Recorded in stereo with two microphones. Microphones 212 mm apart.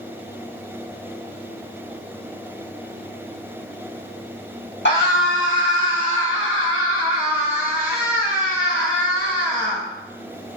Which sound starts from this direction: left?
A scream, at 4.8 s.